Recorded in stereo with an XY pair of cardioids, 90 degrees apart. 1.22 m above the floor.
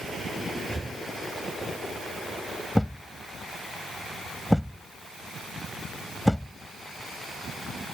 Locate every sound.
0.7 s breathing: 25° right
2.8 s a thud: 5° left